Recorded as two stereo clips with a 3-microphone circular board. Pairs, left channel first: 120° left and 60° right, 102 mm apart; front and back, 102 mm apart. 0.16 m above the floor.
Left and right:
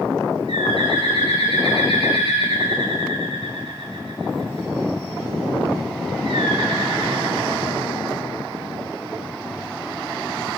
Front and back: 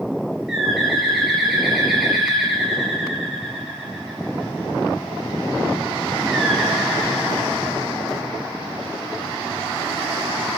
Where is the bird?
95° right, 9.5 m.